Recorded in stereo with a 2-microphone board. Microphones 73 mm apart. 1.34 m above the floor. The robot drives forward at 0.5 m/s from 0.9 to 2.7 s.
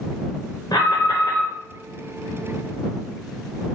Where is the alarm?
75° left (ahead or behind), 0.9 m; by 1.5 s 60° left (ahead or behind), 1.0 m.